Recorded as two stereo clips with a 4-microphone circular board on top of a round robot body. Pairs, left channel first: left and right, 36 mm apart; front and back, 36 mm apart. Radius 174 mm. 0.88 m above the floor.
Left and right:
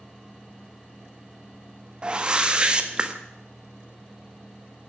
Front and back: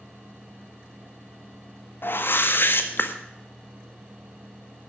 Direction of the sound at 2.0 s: 25° right.